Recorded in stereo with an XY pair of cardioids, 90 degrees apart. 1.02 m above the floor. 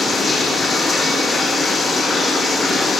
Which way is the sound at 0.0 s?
40° left.